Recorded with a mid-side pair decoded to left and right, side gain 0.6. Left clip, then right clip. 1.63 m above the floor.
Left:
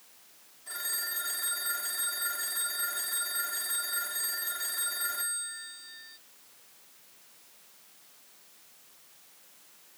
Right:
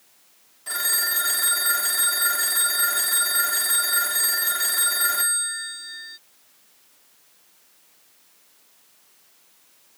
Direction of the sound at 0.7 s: 55° right.